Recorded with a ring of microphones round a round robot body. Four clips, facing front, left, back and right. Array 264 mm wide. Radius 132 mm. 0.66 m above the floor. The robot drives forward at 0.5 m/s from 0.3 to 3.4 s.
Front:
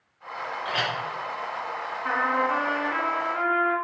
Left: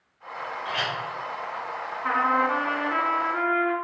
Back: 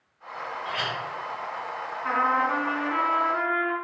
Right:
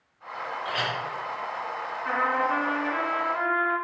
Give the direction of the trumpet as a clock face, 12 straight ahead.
9 o'clock.